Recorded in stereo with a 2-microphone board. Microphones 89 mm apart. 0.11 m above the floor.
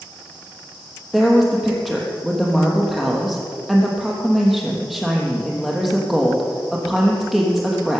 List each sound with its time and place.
1.1 s a woman speaking: centre (ahead or behind), 3.5 m